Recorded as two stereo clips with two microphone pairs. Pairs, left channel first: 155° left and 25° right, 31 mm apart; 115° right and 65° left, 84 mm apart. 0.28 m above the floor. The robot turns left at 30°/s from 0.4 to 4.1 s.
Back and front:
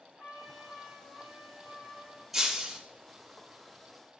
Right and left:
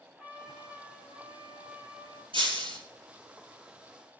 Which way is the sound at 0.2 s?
165° left.